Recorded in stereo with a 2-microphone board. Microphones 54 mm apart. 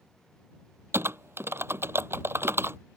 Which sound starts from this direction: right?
Typing on a keyboard, at 0.9 s.